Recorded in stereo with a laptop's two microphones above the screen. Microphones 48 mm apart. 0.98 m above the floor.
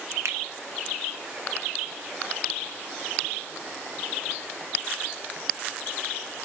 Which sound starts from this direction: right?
A finger snap, at 0.2 s.